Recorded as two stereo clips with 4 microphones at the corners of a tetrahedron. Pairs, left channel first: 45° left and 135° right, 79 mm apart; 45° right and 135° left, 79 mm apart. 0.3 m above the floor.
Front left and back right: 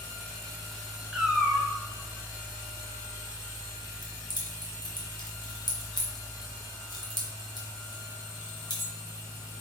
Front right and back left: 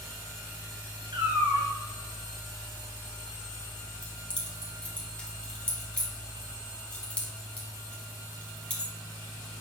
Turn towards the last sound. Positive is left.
turn(degrees=25)